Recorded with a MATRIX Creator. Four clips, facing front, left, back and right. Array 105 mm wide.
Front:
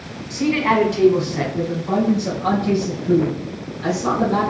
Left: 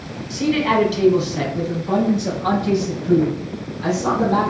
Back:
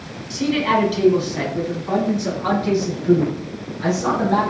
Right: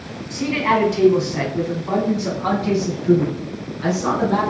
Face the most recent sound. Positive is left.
turn(degrees=-140)